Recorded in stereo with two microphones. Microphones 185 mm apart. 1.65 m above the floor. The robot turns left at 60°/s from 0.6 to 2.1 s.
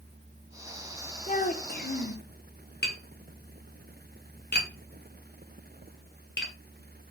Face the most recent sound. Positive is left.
turn(degrees=65)  # may be behind; listen again after turning